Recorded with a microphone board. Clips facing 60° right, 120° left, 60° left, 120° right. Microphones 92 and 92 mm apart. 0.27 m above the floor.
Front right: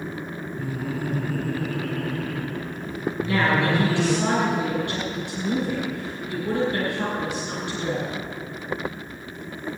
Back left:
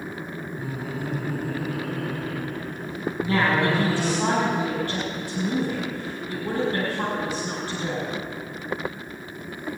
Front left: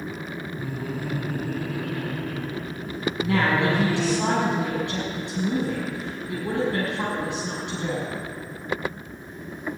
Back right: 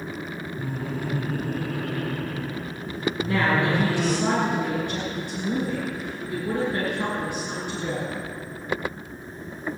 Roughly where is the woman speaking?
Left.